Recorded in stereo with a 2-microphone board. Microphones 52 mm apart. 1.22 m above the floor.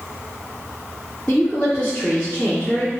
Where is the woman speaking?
30° left (ahead or behind), 1.7 m.